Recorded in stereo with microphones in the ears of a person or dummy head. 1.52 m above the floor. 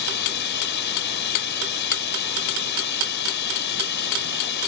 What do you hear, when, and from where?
0.0 s running water: 60° left (ahead or behind)